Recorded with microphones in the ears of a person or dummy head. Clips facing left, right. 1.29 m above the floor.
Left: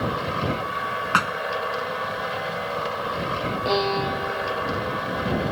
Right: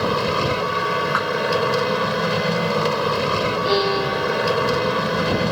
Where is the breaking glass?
No breaking glass in this recording.